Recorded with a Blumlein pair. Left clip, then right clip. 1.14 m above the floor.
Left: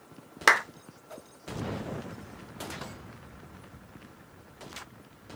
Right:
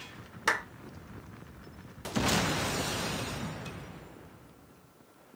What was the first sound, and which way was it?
A clap, 30° left.